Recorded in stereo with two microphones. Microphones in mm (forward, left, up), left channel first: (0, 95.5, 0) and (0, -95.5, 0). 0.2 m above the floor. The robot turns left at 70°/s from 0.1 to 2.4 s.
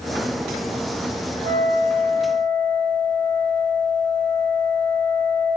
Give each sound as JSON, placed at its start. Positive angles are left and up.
{"t": 1.4, "sound": "a flute", "azimuth_deg": 105, "distance_m": 1.1}